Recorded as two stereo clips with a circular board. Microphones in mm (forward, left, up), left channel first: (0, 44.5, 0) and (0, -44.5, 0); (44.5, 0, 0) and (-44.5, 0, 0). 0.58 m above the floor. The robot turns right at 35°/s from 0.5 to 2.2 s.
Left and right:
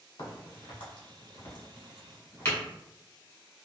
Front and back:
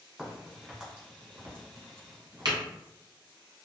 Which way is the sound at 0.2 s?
95° left.